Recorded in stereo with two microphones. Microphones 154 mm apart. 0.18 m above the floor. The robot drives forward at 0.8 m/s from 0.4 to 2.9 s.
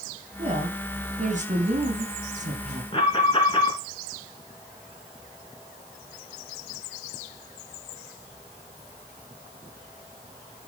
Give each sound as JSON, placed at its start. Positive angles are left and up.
{"t": 0.4, "sound": "a woman speaking", "side_deg": -45, "distance_m": 2.5}
{"t": 2.9, "sound": "an alarm", "side_deg": 35, "distance_m": 3.0}